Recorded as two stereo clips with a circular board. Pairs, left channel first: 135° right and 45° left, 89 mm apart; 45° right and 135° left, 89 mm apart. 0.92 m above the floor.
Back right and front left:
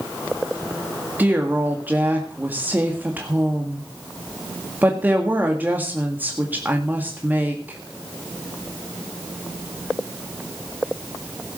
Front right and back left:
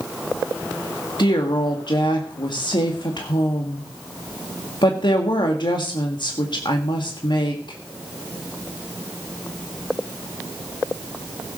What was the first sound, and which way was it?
A woman speaking, 25° right.